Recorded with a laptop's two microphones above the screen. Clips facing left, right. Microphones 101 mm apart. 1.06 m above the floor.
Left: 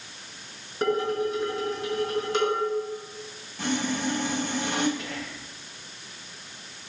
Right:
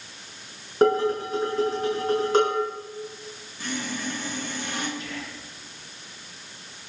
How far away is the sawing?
About 4 m.